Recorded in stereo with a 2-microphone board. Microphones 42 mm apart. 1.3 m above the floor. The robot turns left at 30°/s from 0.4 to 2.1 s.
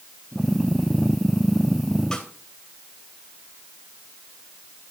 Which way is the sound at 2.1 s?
15° left (ahead or behind).